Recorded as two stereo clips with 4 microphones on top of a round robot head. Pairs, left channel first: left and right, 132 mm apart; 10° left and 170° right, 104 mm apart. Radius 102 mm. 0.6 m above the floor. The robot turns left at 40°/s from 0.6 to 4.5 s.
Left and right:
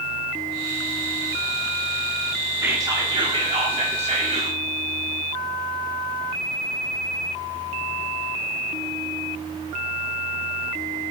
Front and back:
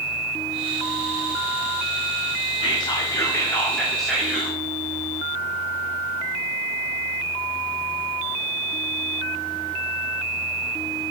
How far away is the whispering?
About 1.6 m.